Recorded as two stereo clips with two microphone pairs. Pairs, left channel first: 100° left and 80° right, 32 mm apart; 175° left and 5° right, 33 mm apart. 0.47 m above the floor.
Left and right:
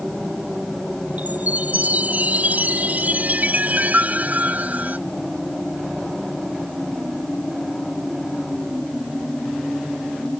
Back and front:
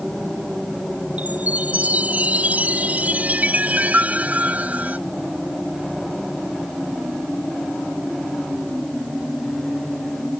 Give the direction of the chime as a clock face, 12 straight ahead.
2 o'clock.